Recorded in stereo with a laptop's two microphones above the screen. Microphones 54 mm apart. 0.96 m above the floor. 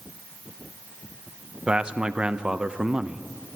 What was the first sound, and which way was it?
A man speaking, 20° right (ahead or behind).